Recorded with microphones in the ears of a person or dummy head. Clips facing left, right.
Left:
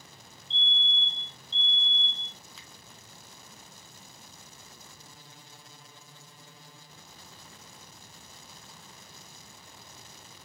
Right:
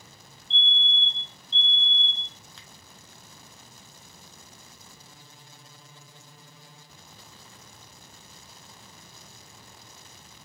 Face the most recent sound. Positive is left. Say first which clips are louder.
# right 1 dB
turn(degrees=5)  # may be behind; listen again after turning